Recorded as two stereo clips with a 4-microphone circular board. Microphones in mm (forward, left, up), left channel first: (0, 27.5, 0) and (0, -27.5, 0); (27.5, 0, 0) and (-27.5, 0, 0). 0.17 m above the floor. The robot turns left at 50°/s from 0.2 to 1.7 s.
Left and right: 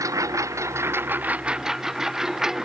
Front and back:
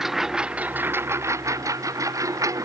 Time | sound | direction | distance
0.0 | a lawn mower | 95° right | ?